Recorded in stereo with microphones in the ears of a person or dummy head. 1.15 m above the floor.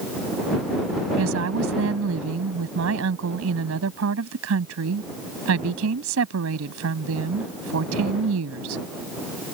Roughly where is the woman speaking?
Right.